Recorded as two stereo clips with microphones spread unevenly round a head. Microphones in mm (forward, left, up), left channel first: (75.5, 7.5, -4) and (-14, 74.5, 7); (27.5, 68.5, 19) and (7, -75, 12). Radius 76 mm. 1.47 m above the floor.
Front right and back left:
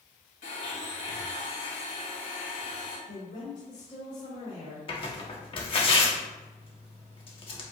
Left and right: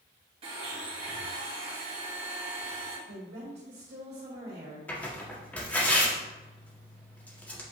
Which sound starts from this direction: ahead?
Tearing paper, at 4.9 s.